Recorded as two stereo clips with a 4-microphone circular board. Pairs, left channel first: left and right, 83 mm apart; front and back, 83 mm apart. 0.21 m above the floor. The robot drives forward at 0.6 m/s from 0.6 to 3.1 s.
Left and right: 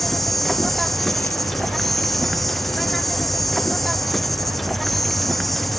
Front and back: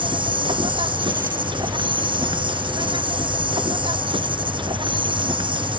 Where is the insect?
175° left.